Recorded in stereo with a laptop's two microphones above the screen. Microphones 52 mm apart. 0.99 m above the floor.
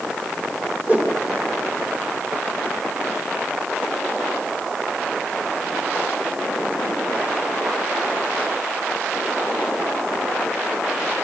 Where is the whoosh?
35° right (ahead or behind), 2.5 m.